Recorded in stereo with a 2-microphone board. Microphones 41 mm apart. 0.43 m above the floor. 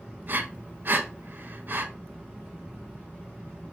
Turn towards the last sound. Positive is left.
turn(degrees=-50)  # may be behind; listen again after turning